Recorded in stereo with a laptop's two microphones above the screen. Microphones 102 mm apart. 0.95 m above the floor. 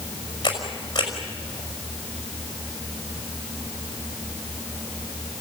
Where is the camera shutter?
45° left (ahead or behind), 5.5 m.